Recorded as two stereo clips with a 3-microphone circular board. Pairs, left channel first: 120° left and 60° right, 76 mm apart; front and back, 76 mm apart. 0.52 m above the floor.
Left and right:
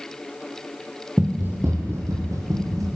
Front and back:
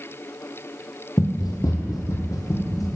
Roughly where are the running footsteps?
Ahead.